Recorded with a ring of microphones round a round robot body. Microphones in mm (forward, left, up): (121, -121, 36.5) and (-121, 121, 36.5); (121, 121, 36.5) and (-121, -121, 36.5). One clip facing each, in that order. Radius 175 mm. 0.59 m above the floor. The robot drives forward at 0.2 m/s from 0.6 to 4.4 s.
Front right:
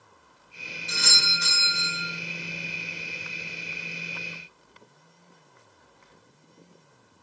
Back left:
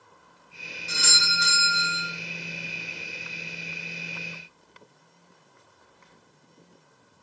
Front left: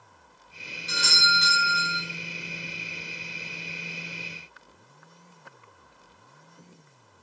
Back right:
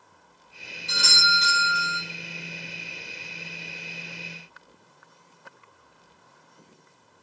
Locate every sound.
0.9 s a doorbell: 75° left, 1.0 m; by 2.0 s 100° left, 1.0 m